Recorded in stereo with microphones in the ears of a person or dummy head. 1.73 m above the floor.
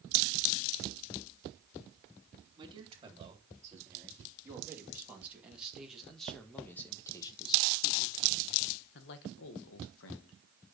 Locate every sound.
2.6 s a man speaking: 20° right (ahead or behind), 4 m; by 10.4 s 75° left (ahead or behind), 1.9 m